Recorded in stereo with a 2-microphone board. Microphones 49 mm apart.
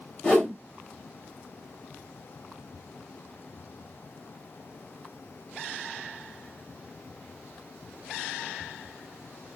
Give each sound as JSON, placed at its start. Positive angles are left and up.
{"t": 0.2, "sound": "a whoosh", "side_deg": 25, "distance_m": 1.9}